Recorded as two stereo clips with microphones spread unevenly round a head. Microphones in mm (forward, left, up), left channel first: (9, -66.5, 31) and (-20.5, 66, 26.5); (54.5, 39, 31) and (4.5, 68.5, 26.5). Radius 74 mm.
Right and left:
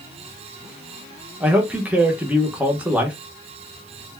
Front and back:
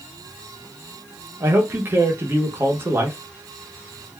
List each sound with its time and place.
1.4 s a man speaking: straight behind, 0.9 m